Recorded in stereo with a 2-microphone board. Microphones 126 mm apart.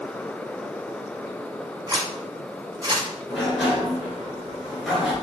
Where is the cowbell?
I don't hear a cowbell.